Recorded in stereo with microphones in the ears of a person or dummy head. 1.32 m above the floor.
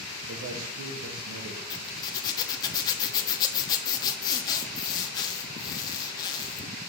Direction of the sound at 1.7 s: 20° left (ahead or behind).